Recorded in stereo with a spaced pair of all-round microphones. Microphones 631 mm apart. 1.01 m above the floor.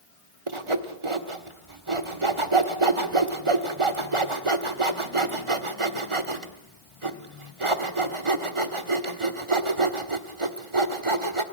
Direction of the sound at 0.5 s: 50° right (ahead or behind).